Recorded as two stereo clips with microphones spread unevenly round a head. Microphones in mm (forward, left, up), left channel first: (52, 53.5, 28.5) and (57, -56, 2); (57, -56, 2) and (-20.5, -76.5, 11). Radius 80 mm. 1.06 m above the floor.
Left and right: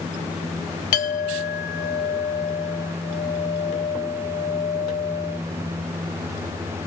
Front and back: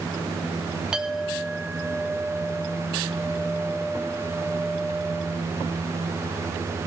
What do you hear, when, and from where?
0.9 s a clink: 110° left, 0.7 m